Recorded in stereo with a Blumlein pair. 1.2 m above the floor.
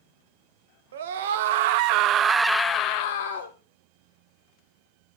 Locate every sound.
0.9 s a scream: 60° right, 1.5 m; by 3.5 s 65° left, 1.0 m